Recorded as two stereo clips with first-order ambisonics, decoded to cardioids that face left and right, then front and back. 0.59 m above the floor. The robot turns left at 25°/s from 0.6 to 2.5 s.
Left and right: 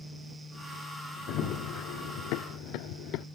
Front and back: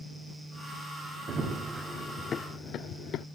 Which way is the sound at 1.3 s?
125° left.